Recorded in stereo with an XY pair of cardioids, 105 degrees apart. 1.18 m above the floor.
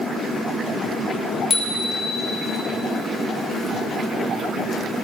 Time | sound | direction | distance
1.5 | a bicycle bell | 30° left | 3 m